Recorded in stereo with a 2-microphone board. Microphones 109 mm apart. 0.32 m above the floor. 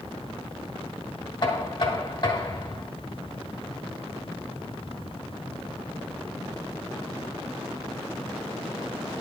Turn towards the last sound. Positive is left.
turn(degrees=50)  # may be behind; listen again after turning